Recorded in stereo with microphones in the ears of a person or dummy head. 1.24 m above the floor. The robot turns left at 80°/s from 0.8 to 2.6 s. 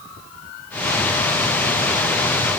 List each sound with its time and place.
Only background noise.